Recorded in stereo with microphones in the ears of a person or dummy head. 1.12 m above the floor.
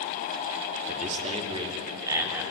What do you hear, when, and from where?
0.9 s a man speaking: 40° right (ahead or behind), 2.5 m; by 2.4 s 10° right (ahead or behind), 3.5 m